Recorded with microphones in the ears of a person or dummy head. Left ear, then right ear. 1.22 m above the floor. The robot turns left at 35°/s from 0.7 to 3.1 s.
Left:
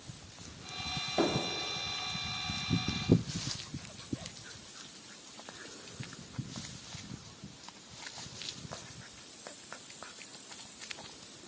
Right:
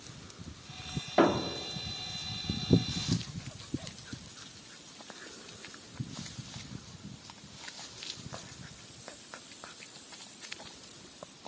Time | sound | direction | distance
1.2 | a thud | 50° right (ahead or behind) | 1.3 m